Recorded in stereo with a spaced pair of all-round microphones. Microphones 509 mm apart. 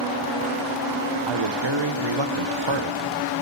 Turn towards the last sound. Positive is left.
turn(degrees=-60)  # may be behind; listen again after turning